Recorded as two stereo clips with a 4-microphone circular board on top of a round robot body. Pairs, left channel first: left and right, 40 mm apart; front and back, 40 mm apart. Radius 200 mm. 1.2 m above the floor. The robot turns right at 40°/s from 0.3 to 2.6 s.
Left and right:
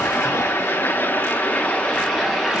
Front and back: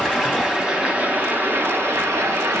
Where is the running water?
95° left, 5 m; by 2.6 s 175° right, 5 m.